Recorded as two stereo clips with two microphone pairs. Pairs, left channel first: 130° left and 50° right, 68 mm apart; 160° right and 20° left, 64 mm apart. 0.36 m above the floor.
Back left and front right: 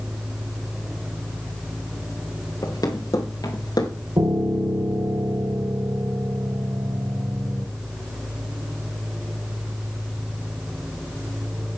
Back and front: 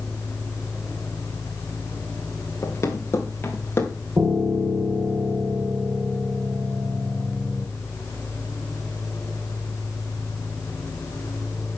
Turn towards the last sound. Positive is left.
turn(degrees=-30)